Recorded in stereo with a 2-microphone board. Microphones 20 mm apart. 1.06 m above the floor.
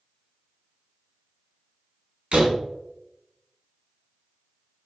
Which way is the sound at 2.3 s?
70° right (ahead or behind).